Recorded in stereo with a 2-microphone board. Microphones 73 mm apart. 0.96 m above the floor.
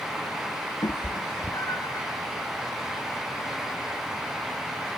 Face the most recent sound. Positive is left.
turn(degrees=50)  # may be behind; listen again after turning